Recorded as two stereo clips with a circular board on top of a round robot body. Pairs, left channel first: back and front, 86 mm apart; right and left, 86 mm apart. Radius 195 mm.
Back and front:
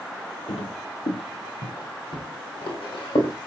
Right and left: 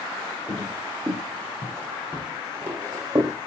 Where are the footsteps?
170° right, 1.7 m; by 3.3 s 145° left, 2.5 m.